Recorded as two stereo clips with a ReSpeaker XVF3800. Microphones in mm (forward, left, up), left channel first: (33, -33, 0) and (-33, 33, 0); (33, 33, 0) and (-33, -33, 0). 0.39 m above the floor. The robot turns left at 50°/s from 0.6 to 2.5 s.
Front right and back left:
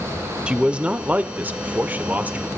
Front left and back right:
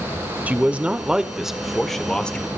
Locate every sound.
0.5 s a man speaking: 170° right, 1.4 m; by 2.5 s 95° left, 1.4 m